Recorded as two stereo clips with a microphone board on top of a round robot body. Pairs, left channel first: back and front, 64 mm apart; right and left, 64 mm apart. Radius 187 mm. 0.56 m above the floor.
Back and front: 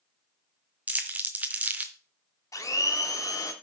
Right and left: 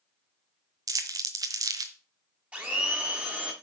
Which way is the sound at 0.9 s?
65° left.